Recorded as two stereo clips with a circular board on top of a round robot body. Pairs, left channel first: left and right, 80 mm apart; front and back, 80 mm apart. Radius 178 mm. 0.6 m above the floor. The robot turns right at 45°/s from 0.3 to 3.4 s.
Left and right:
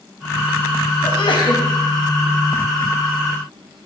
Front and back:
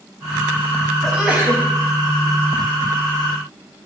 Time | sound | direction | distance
1.0 | a sneeze | 95° left | 4 m